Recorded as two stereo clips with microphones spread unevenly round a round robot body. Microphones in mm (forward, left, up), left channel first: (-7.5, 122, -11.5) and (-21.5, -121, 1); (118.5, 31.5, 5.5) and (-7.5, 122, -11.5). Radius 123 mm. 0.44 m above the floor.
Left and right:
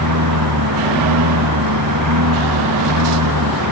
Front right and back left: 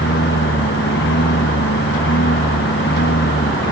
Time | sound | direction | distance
0.0 | a lawn mower | 70° right | ?